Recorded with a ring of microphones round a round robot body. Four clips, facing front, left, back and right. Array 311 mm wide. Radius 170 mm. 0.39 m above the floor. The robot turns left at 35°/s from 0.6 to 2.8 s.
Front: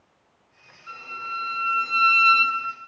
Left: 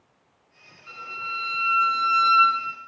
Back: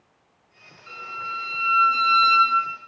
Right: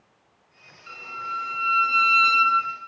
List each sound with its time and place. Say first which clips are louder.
0.9 s a violin: right 2 dB, back 1 dB; 150° right, 1.6 m; by 2.5 s 150° left, 1.6 m